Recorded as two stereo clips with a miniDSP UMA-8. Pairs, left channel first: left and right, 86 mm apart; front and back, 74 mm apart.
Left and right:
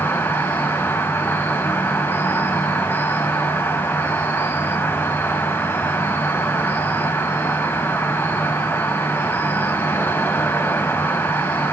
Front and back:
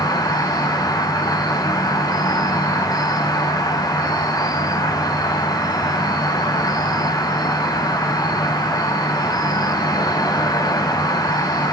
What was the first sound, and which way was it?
An insect, 25° left.